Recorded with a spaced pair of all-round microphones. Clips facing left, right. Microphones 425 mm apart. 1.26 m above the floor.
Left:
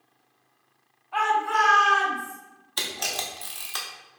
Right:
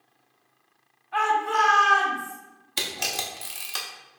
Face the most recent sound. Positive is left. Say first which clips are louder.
# right 1 dB
turn(degrees=-45)  # may be behind; listen again after turning